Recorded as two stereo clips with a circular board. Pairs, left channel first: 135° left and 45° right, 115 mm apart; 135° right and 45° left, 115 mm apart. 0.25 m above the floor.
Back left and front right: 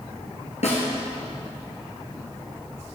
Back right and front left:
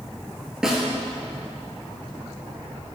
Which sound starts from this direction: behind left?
A snare drum, at 0.6 s.